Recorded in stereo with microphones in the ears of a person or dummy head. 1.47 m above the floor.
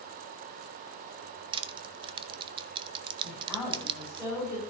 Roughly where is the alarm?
No alarm in this recording.